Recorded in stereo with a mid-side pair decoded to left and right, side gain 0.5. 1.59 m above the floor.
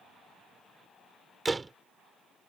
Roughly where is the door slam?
Ahead.